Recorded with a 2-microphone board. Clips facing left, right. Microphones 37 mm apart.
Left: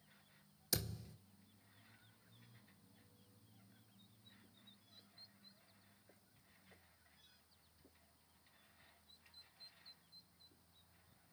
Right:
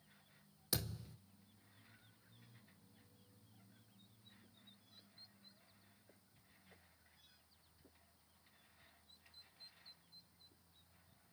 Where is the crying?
No crying in this recording.